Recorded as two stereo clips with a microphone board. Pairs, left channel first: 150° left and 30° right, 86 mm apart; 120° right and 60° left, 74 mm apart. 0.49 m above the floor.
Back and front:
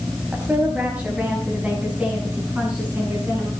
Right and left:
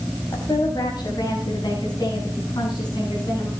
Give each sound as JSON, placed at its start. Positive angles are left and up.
{"t": 0.3, "sound": "a woman speaking", "azimuth_deg": -105, "distance_m": 3.5}